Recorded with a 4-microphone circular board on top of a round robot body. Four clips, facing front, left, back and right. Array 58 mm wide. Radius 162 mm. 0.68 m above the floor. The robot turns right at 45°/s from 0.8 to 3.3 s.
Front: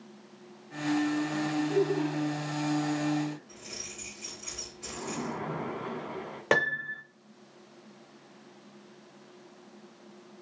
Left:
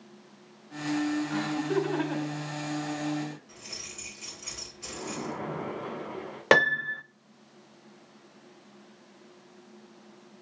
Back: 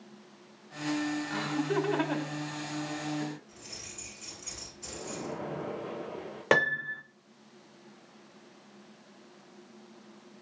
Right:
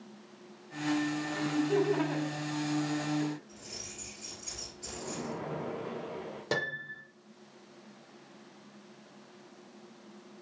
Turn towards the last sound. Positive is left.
turn(degrees=95)